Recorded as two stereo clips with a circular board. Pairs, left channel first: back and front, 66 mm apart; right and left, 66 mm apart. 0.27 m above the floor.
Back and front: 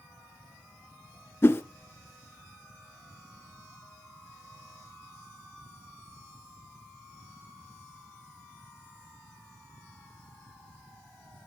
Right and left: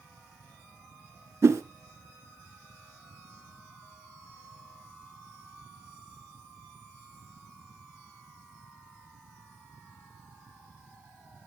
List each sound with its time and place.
1.4 s a whoosh: 130° left, 1.4 m